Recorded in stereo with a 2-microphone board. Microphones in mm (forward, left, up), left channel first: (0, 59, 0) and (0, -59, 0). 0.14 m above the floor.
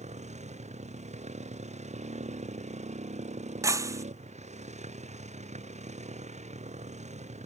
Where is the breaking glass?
25° right (ahead or behind).